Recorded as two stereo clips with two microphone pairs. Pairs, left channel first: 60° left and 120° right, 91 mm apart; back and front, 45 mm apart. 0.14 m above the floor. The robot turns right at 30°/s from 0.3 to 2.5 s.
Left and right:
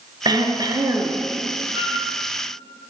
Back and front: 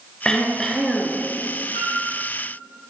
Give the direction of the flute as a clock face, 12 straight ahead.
2 o'clock.